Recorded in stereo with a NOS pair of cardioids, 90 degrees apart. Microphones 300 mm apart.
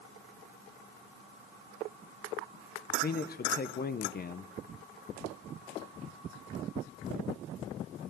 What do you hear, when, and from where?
2.9 s a man speaking: 30° left, 0.7 m